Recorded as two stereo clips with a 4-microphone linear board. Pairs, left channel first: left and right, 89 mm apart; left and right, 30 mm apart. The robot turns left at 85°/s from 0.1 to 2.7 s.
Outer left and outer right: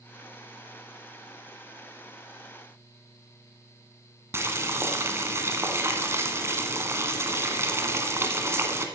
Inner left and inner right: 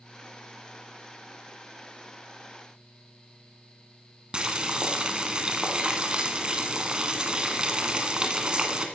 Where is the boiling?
30° right (ahead or behind), 1.3 m.